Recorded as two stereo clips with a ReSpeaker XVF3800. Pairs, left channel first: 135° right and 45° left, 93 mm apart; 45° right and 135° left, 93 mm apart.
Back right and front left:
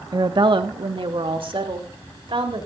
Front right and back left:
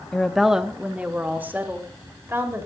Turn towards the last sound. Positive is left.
turn(degrees=70)